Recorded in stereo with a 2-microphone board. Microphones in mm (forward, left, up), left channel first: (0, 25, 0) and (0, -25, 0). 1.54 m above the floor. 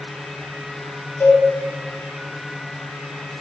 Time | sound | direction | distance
1.2 | a cowbell | 55° left (ahead or behind) | 2 m